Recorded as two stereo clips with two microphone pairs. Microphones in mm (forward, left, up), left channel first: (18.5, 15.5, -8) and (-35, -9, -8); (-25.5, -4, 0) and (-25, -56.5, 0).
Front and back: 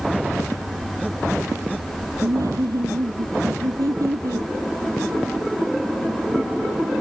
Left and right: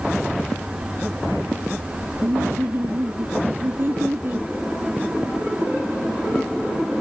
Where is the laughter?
135° right.